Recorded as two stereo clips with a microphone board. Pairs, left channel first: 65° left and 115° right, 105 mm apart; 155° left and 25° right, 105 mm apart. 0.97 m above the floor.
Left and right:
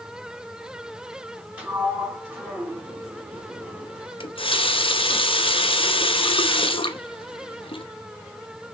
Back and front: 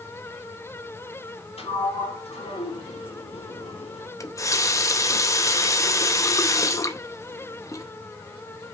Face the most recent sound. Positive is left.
turn(degrees=95)